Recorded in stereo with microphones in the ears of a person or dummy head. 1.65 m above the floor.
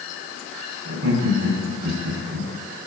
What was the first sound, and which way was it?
Laughter, 85° right.